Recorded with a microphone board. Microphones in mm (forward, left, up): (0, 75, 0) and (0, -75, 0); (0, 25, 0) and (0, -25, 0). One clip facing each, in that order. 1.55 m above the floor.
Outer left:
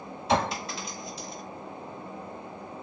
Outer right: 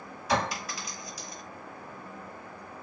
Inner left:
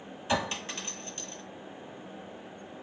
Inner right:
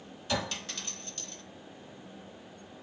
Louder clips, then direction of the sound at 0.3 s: Outer left 3 dB, inner left 3 dB; 25° left (ahead or behind).